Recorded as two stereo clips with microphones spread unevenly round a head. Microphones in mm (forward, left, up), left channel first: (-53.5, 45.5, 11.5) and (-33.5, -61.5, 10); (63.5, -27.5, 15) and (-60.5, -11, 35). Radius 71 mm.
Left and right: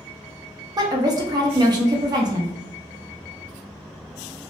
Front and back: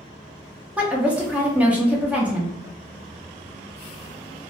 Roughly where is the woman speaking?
Behind right.